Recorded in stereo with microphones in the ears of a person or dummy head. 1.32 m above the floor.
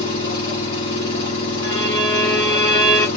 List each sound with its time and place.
0.0 s an engine running: 30° left (ahead or behind), 1.2 m
1.6 s a violin: 20° left (ahead or behind), 1.6 m